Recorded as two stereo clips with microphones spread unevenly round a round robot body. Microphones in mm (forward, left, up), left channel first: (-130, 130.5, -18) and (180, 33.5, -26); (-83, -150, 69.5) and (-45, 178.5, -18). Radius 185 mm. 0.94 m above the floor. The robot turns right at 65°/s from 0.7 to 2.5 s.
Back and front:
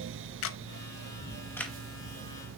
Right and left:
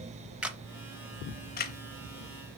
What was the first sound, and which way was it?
A camera shutter, 175° right.